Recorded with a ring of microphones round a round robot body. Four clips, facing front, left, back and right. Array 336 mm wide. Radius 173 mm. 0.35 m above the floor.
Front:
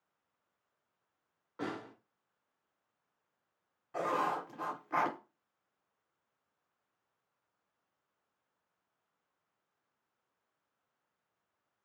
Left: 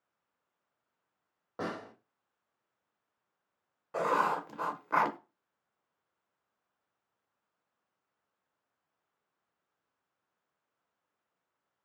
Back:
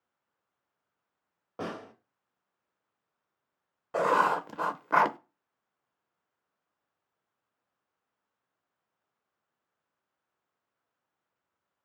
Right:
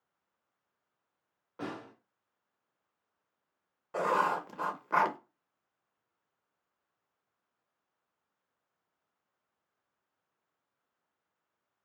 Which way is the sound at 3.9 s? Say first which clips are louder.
Even, back 8 dB; straight behind.